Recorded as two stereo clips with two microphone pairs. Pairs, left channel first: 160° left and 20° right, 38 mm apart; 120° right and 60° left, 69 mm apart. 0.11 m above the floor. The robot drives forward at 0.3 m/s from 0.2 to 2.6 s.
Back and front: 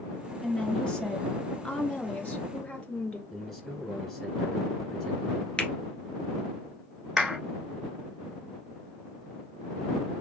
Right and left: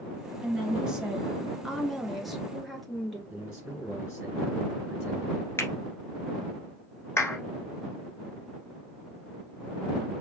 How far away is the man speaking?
About 1.2 m.